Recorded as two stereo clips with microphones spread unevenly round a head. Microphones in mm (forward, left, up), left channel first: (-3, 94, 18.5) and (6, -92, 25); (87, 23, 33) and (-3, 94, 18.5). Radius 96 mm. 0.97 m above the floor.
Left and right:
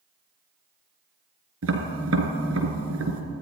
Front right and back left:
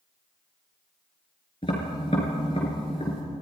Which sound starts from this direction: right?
Tapping, at 1.6 s.